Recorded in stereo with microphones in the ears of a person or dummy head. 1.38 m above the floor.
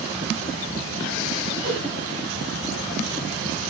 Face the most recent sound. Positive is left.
turn(degrees=-60)  # may be behind; listen again after turning